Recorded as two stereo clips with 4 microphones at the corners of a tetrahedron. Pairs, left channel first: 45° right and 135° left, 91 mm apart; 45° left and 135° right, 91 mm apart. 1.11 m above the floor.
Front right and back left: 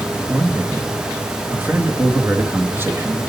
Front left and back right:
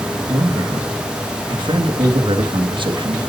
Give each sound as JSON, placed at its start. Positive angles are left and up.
{"t": 0.3, "sound": "a man speaking", "azimuth_deg": -160, "distance_m": 1.4}